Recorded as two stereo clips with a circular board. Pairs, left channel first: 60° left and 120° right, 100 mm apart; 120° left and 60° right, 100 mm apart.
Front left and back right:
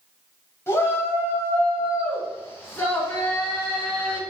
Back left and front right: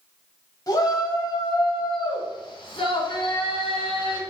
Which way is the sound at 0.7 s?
105° left.